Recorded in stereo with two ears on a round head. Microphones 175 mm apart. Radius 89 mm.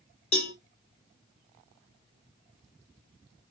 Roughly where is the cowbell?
Left.